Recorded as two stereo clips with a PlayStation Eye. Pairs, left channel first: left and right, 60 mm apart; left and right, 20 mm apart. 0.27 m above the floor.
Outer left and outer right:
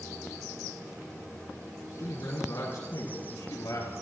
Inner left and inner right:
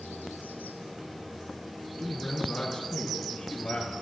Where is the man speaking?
45° left (ahead or behind), 3 m; by 3.9 s 70° left (ahead or behind), 3.5 m.